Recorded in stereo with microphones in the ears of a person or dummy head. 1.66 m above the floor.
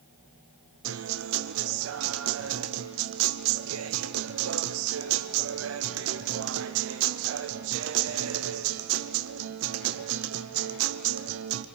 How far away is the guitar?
About 0.6 m.